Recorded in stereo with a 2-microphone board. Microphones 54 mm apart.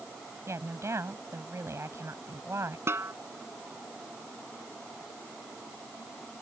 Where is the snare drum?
50° right (ahead or behind).